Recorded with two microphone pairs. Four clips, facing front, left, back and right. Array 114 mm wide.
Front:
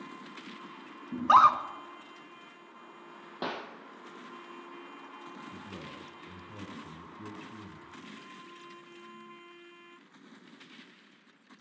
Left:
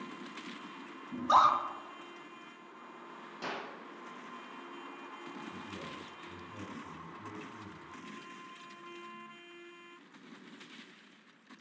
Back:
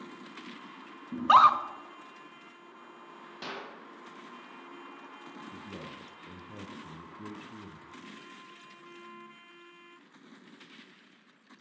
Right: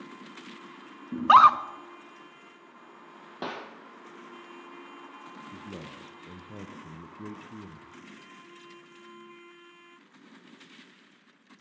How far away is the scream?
About 1.5 m.